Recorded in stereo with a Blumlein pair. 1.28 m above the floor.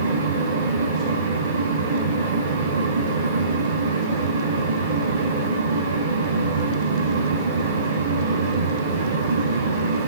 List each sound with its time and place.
0.0 s a fan: 70° right, 4.5 m